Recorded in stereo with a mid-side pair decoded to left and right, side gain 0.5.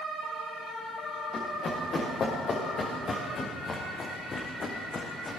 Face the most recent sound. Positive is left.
turn(degrees=30)